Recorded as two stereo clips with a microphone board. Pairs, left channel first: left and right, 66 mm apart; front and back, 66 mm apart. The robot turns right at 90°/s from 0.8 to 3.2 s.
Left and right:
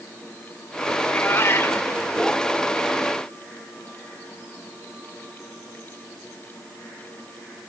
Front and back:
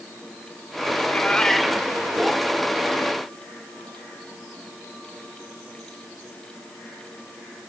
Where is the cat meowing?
35° left, 1.5 m; by 1.9 s 120° left, 1.5 m.